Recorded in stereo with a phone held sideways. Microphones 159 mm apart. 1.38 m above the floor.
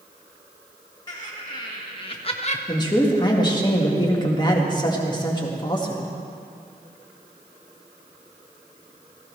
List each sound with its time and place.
1.1 s laughter: 25° left (ahead or behind), 1.7 m; by 2.6 s 45° left (ahead or behind), 0.5 m
2.7 s a man speaking: 25° left (ahead or behind), 1.8 m